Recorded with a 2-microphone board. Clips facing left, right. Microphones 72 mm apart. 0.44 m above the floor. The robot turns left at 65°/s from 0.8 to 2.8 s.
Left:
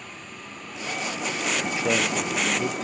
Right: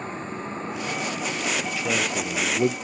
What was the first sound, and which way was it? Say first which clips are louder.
A vehicle: right 9 dB; 35° right (ahead or behind).